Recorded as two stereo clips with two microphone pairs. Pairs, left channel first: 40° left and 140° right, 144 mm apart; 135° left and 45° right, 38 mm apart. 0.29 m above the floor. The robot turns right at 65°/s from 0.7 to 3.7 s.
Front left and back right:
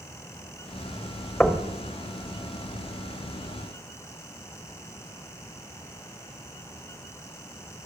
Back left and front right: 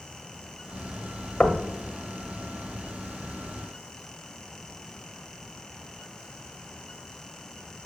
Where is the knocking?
110° left, 1.2 m; by 1.7 s 130° left, 1.2 m.